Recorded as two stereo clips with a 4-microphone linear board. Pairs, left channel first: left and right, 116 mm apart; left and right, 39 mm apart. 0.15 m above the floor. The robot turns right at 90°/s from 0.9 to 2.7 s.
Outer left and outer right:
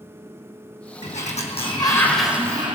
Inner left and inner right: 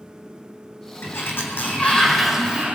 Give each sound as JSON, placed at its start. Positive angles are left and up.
{"t": 1.0, "sound": "a sliding door", "azimuth_deg": 70, "distance_m": 1.8}